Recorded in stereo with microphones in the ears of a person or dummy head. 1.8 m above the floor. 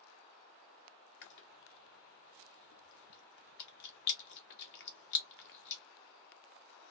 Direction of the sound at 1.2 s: 55° left (ahead or behind).